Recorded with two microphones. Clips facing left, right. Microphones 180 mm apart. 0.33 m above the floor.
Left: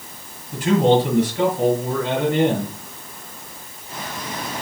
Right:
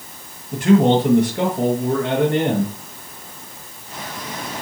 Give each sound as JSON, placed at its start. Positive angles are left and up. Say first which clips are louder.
{"t": 0.5, "sound": "a man speaking", "louder": "right 2 dB", "side_deg": -60, "distance_m": 5.5}